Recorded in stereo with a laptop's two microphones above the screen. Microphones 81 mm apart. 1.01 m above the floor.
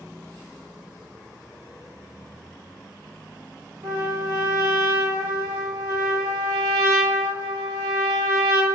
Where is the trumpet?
75° right (ahead or behind), 2.5 m.